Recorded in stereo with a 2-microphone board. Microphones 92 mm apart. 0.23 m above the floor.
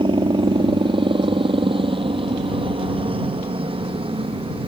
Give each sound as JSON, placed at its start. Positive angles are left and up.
{"t": 0.0, "sound": "a helicopter", "side_deg": -60}